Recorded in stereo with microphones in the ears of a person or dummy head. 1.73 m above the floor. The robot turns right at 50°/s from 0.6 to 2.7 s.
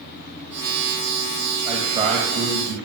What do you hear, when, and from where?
1.6 s a man speaking: 175° left, 2.5 m; by 2.8 s 135° right, 2.5 m